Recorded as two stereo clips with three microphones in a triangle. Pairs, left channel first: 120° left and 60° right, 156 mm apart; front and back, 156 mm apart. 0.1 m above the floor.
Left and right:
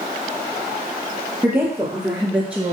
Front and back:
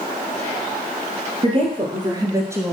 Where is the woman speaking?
145° right, 2.5 m; by 2.7 s 125° right, 1.4 m.